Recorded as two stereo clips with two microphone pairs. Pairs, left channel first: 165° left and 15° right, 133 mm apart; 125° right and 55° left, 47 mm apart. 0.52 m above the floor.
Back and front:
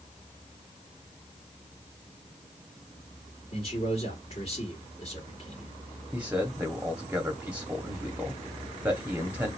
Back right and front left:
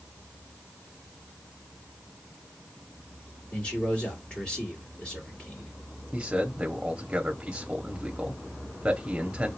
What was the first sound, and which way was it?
A man speaking, 175° right.